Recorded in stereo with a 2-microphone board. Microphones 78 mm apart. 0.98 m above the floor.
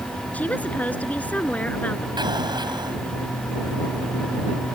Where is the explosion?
65° right (ahead or behind).